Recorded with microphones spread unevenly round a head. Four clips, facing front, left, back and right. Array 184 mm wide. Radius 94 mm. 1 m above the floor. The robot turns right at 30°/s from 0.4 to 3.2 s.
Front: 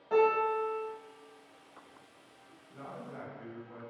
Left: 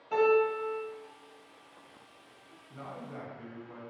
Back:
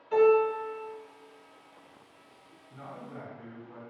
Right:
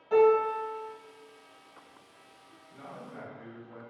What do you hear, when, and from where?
0.1 s a piano: 15° right, 1.5 m; by 0.8 s 5° right, 1.5 m
2.7 s a man speaking: 55° left, 1.4 m; by 3.8 s 70° left, 1.4 m